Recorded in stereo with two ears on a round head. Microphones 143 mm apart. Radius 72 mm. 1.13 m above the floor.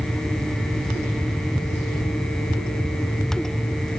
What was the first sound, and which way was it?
Only background noise.